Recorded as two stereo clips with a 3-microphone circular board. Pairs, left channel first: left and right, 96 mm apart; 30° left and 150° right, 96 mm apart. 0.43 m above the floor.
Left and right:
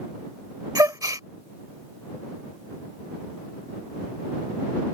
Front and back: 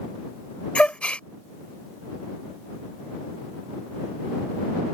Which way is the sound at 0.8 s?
45° right.